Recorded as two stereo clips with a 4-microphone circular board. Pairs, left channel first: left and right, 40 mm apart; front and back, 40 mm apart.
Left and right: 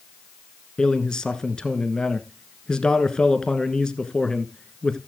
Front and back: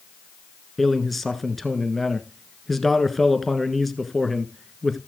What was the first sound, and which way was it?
A man speaking, 85° left.